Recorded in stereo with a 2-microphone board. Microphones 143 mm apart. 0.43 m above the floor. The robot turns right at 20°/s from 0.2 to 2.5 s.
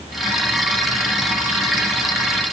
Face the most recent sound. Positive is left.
No sound to turn to.